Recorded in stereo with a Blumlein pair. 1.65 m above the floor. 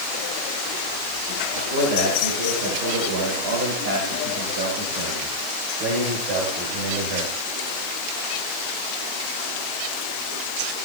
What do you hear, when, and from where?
1.6 s a man speaking: 65° right, 8 m; by 7.3 s 40° right, 6 m